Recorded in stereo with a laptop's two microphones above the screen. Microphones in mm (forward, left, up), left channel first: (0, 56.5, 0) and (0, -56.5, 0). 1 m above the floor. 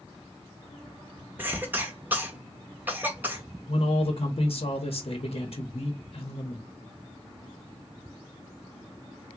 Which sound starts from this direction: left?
A man speaking, at 3.7 s.